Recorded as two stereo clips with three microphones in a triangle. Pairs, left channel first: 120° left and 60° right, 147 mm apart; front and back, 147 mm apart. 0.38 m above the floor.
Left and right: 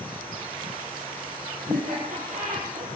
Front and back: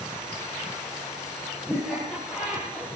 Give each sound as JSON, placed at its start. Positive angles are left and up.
{"t": 1.7, "sound": "laughter", "azimuth_deg": -90, "distance_m": 8.5}